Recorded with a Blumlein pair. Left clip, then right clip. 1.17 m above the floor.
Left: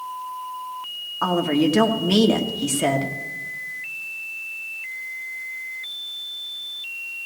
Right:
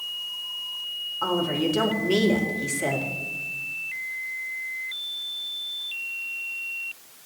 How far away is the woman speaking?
About 2.0 m.